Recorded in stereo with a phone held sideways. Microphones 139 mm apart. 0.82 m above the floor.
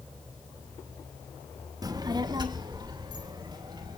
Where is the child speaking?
25° right (ahead or behind), 0.8 m; by 4.0 s 30° right (ahead or behind), 4 m.